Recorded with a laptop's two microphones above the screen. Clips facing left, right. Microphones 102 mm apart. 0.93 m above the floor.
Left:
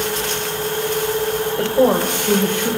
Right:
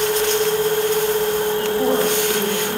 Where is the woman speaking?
70° left (ahead or behind), 4 m.